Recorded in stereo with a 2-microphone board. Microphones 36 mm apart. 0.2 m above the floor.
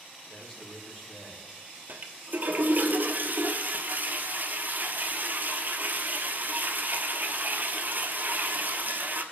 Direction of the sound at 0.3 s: 25° left (ahead or behind).